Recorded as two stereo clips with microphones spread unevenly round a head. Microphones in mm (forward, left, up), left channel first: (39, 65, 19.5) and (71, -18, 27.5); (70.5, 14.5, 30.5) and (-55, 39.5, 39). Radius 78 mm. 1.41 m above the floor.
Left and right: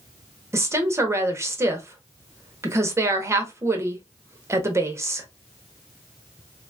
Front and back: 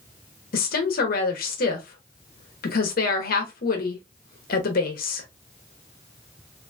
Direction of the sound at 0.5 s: 10° right.